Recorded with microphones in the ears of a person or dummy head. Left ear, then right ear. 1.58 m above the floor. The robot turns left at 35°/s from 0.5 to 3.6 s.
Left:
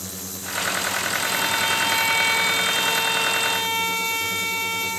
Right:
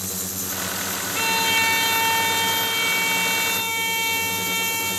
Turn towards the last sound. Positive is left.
turn(degrees=130)